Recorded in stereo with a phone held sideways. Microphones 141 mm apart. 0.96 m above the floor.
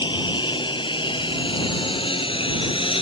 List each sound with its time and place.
0.0 s a lawn mower: 35° left (ahead or behind); by 3.0 s 40° left (ahead or behind)